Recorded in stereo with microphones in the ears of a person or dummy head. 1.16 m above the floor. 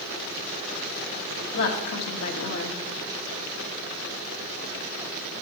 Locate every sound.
1.5 s a woman speaking: 65° left (ahead or behind), 1.5 m